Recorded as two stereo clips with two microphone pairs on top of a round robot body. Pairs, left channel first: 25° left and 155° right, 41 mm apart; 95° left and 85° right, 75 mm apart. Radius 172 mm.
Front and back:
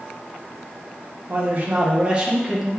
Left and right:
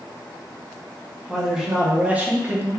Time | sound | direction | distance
1.3 | a man speaking | 160° right | 1.0 m